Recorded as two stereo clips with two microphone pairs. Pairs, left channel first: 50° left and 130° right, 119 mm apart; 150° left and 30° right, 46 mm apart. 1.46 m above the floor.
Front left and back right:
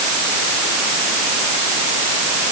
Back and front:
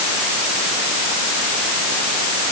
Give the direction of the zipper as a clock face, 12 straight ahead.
I don't hear a zipper.